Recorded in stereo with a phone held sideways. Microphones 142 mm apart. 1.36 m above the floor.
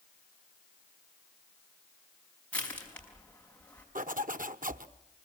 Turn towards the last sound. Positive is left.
turn(degrees=-70)  # may be behind; listen again after turning